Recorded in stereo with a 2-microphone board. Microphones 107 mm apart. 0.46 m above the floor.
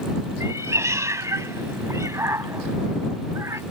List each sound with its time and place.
0.4 s a cat meowing: 30° right (ahead or behind)